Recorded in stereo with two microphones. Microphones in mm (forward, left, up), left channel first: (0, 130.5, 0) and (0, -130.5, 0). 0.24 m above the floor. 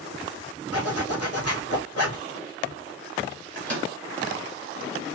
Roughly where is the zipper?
Left.